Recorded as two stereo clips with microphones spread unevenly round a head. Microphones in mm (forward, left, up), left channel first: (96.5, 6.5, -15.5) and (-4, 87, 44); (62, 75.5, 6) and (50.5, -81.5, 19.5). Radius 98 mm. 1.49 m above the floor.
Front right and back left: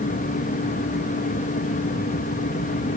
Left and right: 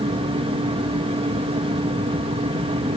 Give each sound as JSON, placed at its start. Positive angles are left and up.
{"t": 0.0, "sound": "a fan", "azimuth_deg": -40, "distance_m": 3.5}